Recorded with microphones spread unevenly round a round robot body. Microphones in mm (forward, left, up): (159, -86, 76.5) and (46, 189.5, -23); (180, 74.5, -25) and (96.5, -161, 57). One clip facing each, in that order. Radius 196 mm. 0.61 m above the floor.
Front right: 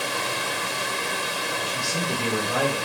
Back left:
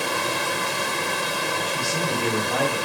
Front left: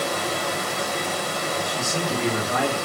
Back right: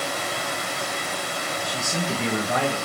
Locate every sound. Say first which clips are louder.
0.0 s running water: back left 3 dB, front left 4 dB; 115° left, 2 m
1.6 s a man speaking: back left 2 dB, front left 2 dB; 150° right, 3.5 m